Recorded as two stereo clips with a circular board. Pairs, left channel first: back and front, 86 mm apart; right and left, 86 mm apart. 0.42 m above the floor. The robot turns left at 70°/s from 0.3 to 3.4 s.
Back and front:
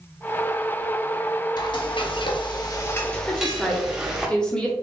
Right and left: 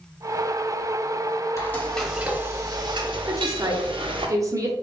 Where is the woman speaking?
115° left, 0.9 m; by 4.7 s 105° left, 0.9 m.